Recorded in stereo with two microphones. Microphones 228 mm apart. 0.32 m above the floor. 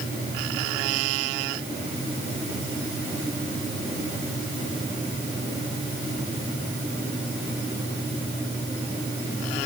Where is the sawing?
I don't hear sawing.